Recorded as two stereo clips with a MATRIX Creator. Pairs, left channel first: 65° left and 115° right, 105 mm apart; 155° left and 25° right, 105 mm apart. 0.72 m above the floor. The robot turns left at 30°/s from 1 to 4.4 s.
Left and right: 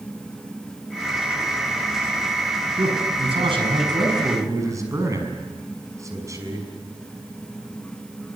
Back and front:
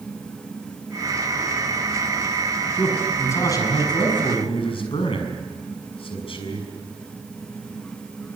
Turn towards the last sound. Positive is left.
turn(degrees=-170)